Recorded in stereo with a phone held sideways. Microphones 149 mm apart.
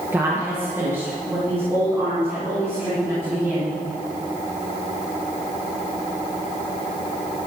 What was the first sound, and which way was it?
A woman speaking, 15° right (ahead or behind).